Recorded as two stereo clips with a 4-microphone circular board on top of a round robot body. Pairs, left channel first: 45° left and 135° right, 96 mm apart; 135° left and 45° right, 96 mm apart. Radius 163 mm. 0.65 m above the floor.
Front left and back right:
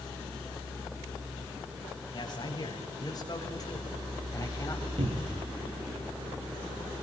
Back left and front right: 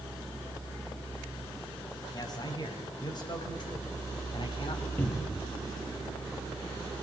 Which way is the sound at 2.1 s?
90° left.